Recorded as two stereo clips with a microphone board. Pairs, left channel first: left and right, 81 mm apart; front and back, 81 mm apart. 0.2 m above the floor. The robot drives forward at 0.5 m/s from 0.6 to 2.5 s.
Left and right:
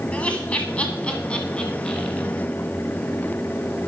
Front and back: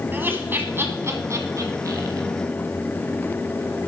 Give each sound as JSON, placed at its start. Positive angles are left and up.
{"t": 0.1, "sound": "laughter", "azimuth_deg": 145, "distance_m": 1.3}